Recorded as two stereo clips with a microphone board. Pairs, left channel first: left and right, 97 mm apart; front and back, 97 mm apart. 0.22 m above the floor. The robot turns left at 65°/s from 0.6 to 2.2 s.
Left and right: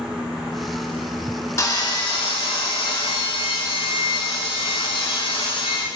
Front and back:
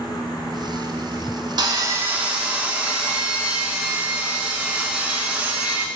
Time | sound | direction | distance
1.6 | sawing | 145° left | 0.6 m